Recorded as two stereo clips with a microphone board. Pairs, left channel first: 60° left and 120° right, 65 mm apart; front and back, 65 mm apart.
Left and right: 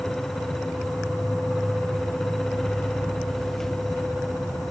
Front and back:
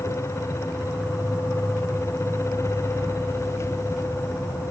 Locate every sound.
0.0 s an insect: 145° left, 2 m